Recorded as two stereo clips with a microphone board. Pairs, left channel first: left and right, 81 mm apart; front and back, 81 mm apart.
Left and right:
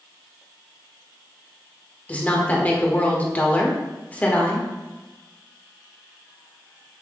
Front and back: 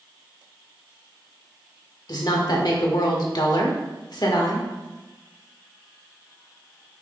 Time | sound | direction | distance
2.1 | a woman speaking | 20° left | 1.5 m